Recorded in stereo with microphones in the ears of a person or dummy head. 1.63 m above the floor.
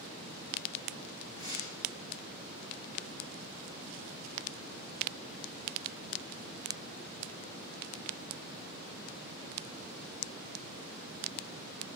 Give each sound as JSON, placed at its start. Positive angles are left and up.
{"t": 1.3, "sound": "tearing paper", "side_deg": 35, "distance_m": 7.5}